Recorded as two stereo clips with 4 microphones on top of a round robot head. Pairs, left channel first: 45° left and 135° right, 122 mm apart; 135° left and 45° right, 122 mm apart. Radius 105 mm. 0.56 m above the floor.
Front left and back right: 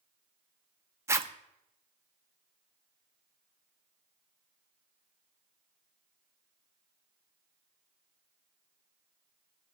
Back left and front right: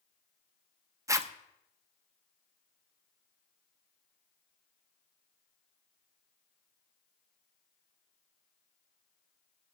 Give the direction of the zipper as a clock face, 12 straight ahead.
3 o'clock.